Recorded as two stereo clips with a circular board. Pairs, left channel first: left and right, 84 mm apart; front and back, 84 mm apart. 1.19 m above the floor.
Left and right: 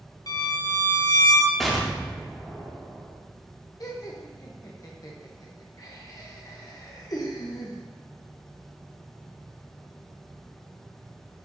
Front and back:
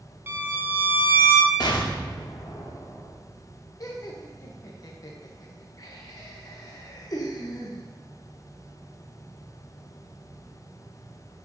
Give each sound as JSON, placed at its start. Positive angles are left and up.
{"t": 0.3, "sound": "a violin", "azimuth_deg": 120, "distance_m": 0.7}
{"t": 1.6, "sound": "an explosion", "azimuth_deg": 0, "distance_m": 1.0}
{"t": 3.8, "sound": "laughter", "azimuth_deg": 45, "distance_m": 0.9}